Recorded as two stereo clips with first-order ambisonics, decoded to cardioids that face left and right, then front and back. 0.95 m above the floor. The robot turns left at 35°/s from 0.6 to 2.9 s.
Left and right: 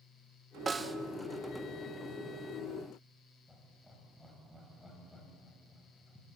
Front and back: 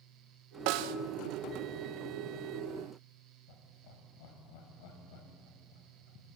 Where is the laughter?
5° left, 5 m.